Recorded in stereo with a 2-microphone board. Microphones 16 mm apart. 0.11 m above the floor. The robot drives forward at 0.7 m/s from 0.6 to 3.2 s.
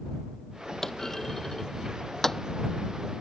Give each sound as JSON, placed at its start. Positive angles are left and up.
{"t": 0.8, "sound": "a clunk", "side_deg": 25}